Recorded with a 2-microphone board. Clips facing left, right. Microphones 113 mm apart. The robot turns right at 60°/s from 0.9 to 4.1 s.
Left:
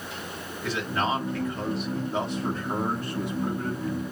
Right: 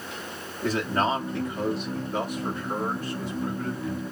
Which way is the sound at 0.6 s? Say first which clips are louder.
Right 3 dB; 50° right.